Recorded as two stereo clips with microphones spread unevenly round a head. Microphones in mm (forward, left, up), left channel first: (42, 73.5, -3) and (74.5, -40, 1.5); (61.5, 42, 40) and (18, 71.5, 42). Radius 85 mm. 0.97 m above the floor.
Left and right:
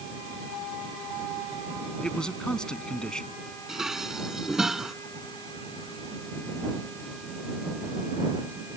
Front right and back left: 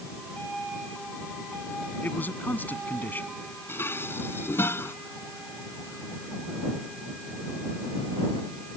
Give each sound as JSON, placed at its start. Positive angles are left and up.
{"t": 2.0, "sound": "a man speaking", "azimuth_deg": 20}
{"t": 3.7, "sound": "dishes clattering", "azimuth_deg": 10}